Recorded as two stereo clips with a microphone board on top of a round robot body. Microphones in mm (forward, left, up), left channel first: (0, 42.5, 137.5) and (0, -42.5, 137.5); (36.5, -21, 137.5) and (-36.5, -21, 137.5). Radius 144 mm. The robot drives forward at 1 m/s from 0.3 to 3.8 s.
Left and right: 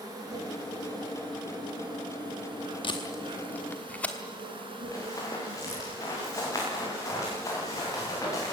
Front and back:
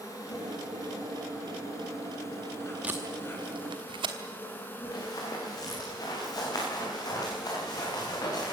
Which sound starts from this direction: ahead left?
Running footsteps, at 4.9 s.